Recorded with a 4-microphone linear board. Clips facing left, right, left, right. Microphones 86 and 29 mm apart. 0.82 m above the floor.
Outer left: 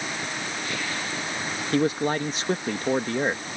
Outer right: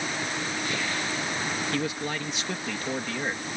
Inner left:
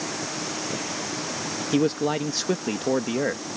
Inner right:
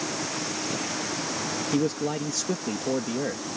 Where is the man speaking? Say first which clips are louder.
Outer left 7 dB, inner left 5 dB; 40° left (ahead or behind).